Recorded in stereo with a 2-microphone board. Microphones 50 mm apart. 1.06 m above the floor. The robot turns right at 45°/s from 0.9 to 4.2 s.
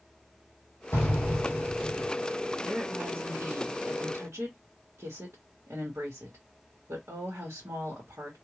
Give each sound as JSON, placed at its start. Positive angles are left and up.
{"t": 0.9, "sound": "an explosion", "azimuth_deg": 60, "distance_m": 2.5}
{"t": 2.6, "sound": "a woman speaking", "azimuth_deg": -155, "distance_m": 1.3}